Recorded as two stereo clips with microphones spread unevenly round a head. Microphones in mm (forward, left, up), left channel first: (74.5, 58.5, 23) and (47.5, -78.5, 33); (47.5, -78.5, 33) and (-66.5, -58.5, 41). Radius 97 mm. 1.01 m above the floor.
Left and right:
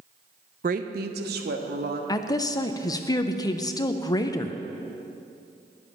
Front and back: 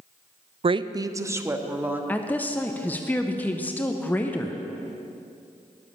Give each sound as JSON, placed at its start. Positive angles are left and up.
{"t": 0.6, "sound": "a woman speaking", "azimuth_deg": -145, "distance_m": 0.5}
{"t": 2.1, "sound": "a woman speaking", "azimuth_deg": 50, "distance_m": 0.6}